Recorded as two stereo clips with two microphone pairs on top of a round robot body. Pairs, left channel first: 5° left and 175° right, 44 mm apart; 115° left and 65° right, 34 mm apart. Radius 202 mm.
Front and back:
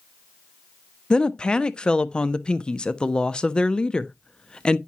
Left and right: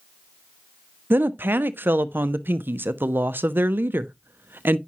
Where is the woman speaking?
60° right, 0.6 m.